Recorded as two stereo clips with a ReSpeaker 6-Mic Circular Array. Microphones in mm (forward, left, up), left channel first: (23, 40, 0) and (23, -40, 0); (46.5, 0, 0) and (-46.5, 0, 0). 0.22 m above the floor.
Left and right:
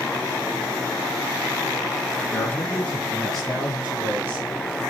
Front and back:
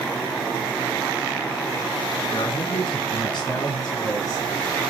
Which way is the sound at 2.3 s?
35° left.